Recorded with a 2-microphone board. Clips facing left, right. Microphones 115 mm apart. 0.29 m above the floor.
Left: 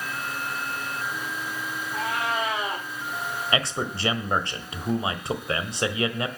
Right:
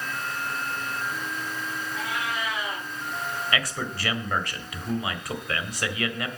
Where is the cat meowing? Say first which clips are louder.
Left 5 dB; 50° left (ahead or behind), 6.5 m.